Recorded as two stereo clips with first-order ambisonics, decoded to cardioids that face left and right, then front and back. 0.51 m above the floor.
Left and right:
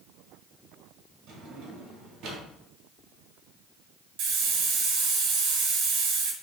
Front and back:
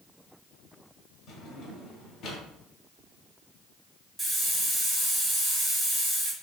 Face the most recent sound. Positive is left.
turn(degrees=-95)